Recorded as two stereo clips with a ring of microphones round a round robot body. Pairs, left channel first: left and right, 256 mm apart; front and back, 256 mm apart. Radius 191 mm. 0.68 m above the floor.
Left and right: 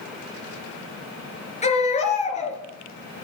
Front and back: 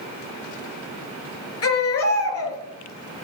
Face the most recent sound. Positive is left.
turn(degrees=25)